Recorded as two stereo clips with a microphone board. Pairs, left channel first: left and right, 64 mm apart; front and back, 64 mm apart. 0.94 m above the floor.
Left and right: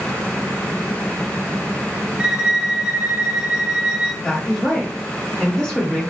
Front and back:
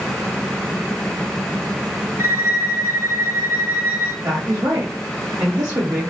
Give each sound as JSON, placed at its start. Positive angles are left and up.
{"t": 2.2, "sound": "a violin", "azimuth_deg": -160, "distance_m": 1.2}
{"t": 4.2, "sound": "a woman speaking", "azimuth_deg": 165, "distance_m": 1.2}